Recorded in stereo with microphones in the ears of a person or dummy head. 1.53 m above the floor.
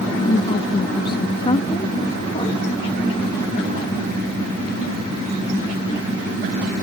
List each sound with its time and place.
0.2 s a woman speaking: 30° left (ahead or behind)